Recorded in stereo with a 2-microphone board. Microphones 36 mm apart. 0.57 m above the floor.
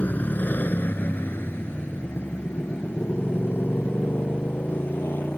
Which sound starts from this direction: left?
A motorcycle, at 0.0 s.